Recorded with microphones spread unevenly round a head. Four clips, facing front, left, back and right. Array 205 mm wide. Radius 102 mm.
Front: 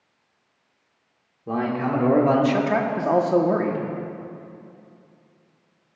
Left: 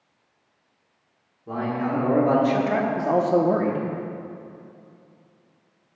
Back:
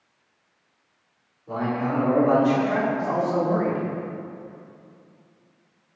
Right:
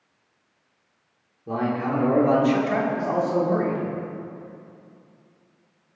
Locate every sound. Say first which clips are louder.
1.5 s a man speaking: right 1 dB, front 2 dB; 25° right, 1.6 m; by 3.9 s 65° left, 1.0 m